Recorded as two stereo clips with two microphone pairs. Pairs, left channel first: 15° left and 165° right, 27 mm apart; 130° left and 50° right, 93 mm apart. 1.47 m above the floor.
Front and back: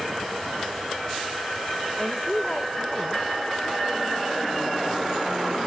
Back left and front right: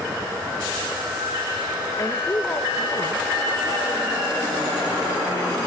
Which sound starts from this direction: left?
A woman speaking, at 2.0 s.